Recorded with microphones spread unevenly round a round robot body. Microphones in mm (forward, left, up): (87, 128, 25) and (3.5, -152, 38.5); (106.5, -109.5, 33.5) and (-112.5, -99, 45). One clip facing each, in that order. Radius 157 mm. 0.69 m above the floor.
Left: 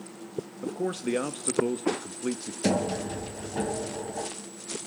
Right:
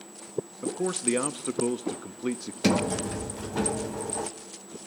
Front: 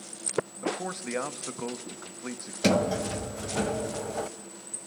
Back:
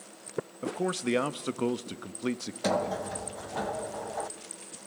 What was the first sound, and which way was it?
A man speaking, 170° left.